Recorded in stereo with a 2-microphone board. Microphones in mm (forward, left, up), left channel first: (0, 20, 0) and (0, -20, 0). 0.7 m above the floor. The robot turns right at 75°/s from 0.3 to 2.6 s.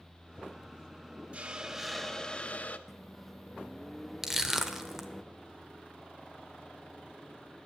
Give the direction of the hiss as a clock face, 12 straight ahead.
2 o'clock.